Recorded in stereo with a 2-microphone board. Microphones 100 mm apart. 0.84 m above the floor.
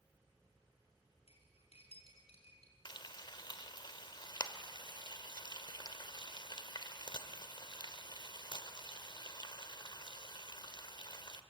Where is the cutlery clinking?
80° left, 5 m.